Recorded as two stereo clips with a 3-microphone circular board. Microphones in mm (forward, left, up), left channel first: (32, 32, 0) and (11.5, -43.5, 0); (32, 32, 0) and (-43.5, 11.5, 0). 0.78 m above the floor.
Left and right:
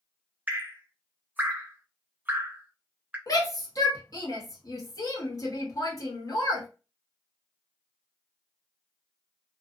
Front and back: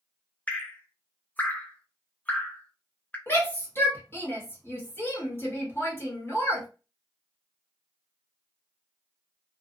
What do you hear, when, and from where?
0.5 s dripping: 50° right, 0.5 m
3.3 s a shout: 65° left, 1.2 m